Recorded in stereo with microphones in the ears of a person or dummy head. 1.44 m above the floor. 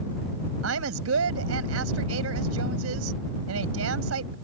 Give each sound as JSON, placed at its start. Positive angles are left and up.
{"t": 0.6, "sound": "a woman speaking", "side_deg": -80}